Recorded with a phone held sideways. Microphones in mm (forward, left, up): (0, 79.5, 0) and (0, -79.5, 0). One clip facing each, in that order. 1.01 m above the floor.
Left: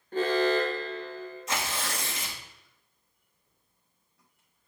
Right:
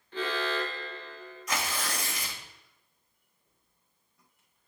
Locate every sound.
0.1 s an alarm: 45° left (ahead or behind), 1.1 m
1.5 s tearing paper: 25° left (ahead or behind), 2 m